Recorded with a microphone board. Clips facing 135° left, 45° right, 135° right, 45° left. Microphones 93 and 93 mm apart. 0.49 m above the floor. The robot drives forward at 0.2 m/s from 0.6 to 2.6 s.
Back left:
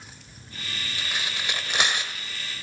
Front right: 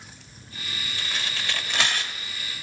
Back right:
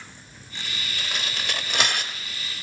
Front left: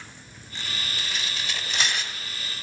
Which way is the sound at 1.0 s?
150° right.